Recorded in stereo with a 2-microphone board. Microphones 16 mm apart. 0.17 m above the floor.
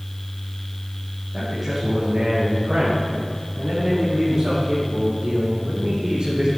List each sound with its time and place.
1.3 s a man speaking: 20° right (ahead or behind), 6 m; by 6.5 s 70° right (ahead or behind), 6.5 m